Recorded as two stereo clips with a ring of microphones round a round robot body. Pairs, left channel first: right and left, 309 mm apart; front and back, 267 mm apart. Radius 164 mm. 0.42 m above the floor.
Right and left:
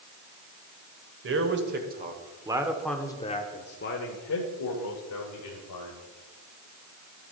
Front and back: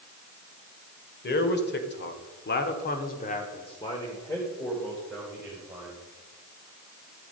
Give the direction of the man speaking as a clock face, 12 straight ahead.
10 o'clock.